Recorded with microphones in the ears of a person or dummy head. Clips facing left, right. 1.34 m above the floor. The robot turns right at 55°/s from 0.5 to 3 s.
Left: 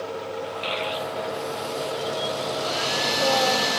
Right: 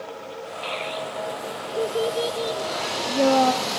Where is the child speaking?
25° left (ahead or behind), 1.1 m; by 3.5 s 70° right (ahead or behind), 1.1 m.